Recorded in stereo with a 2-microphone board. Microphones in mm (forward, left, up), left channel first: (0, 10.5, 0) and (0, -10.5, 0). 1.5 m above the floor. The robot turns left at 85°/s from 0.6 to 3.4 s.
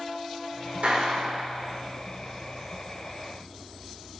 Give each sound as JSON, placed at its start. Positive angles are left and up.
{"t": 0.8, "sound": "a clap", "azimuth_deg": -85, "distance_m": 1.7}